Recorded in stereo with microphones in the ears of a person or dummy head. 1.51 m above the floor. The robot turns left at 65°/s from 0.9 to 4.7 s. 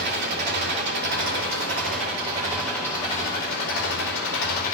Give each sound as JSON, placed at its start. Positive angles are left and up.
{"t": 0.0, "sound": "an engine running", "azimuth_deg": -65, "distance_m": 4.5}